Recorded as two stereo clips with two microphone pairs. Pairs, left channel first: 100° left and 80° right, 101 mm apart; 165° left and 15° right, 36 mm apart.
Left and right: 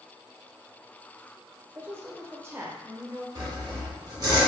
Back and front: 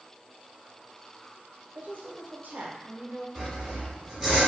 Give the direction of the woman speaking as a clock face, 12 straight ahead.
12 o'clock.